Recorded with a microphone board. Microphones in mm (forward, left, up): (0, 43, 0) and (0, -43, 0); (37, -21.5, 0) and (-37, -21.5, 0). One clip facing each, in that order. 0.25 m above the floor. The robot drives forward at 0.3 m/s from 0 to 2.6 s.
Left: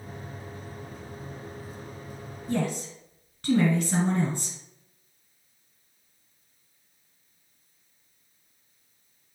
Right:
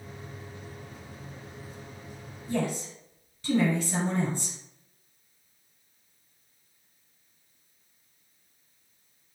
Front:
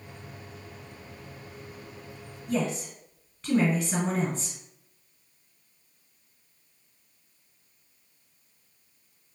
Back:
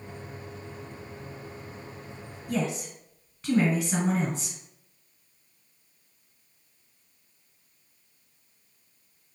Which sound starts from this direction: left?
A woman speaking, at 2.5 s.